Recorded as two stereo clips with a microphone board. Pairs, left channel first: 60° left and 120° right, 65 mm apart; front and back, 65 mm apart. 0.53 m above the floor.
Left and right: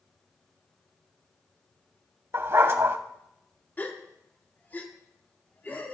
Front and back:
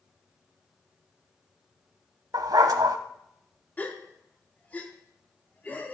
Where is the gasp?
35° left, 1.2 m.